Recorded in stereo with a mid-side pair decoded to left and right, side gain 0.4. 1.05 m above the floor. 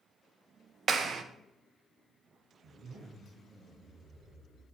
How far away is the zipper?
About 4 m.